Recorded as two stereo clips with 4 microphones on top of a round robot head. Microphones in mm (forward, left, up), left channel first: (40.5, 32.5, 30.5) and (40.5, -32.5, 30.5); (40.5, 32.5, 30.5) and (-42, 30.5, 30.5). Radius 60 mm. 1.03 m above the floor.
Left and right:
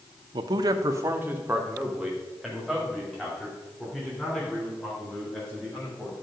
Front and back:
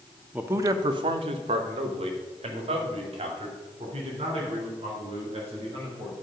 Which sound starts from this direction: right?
A man speaking, at 0.3 s.